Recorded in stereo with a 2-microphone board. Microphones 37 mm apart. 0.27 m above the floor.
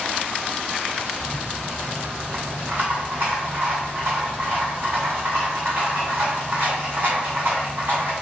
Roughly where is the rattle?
Right.